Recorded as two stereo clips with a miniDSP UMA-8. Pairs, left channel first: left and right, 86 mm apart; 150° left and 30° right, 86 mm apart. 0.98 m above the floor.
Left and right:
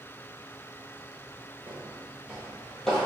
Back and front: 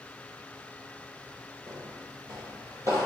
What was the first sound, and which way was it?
Footsteps, 35° right.